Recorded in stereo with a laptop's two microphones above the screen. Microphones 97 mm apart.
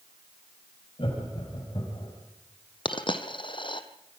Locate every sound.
1.0 s laughter: 65° left (ahead or behind), 5.5 m; by 2.1 s 70° left (ahead or behind), 6.5 m
2.9 s a dropped coin: 55° left (ahead or behind), 1.8 m